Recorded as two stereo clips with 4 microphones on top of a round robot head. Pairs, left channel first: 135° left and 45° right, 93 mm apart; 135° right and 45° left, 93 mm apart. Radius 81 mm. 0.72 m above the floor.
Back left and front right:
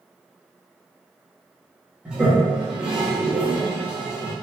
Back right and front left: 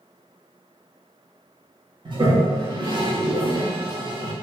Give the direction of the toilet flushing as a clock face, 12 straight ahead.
11 o'clock.